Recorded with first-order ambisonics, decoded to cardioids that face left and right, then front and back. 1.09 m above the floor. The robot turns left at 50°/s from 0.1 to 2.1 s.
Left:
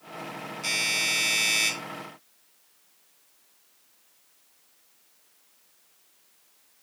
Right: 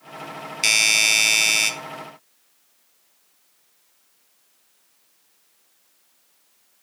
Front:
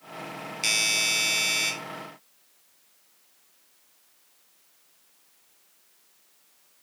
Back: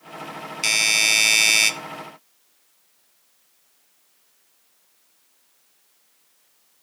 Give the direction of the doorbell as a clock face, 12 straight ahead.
3 o'clock.